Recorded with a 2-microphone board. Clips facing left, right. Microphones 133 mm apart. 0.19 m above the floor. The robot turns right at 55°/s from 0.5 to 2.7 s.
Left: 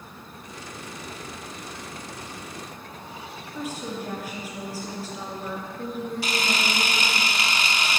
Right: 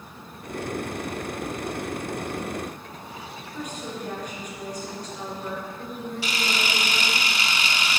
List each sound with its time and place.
3.5 s a woman speaking: 5° left (ahead or behind), 2.5 m
6.2 s a camera shutter: 40° left (ahead or behind), 0.6 m